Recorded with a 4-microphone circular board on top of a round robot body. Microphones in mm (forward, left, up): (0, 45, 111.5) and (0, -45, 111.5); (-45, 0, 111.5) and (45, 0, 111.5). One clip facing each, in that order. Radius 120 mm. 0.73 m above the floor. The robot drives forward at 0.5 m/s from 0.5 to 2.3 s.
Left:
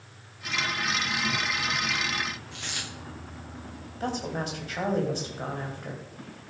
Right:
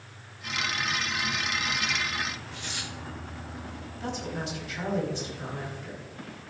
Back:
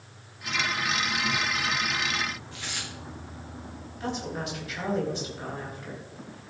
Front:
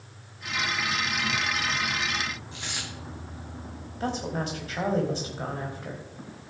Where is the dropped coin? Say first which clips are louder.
Even, front 1 dB; 70° left, 7.5 m.